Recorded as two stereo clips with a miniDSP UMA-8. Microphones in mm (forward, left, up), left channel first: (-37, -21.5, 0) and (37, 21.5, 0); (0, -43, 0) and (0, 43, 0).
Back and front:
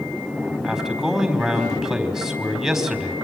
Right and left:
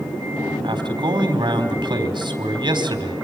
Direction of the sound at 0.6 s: 115° left.